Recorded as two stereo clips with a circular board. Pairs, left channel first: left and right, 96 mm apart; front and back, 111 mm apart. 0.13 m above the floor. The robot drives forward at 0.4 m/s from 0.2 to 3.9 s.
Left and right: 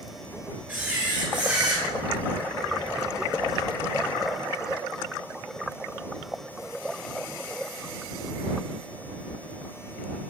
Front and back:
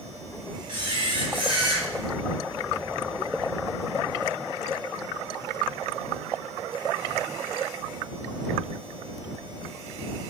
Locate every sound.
0.7 s a camera shutter: 155° right, 2.5 m; by 1.9 s 160° right, 3 m